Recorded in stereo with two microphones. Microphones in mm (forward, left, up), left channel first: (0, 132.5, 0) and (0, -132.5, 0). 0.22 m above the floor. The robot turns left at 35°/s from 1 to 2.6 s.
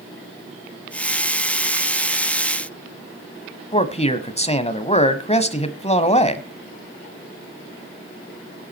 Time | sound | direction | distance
3.7 | a man speaking | 25° left (ahead or behind) | 1.2 m